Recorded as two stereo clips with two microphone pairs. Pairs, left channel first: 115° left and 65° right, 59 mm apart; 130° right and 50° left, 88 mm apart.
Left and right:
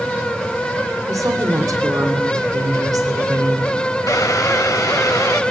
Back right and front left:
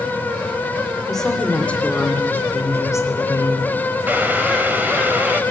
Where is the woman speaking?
45° right, 3 m; by 3.8 s 85° right, 4 m.